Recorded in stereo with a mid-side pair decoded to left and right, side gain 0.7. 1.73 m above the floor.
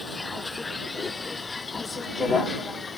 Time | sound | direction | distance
0.0 | a vehicle | 15° left | ?